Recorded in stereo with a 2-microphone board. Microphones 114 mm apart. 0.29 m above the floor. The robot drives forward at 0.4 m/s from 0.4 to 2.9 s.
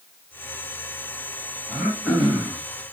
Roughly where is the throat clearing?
Centre.